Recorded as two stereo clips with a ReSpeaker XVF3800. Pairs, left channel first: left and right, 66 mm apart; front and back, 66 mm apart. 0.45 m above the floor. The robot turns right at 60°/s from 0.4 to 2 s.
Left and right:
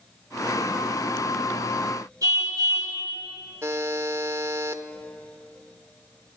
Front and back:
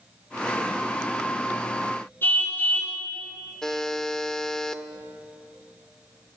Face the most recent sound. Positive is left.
turn(degrees=-80)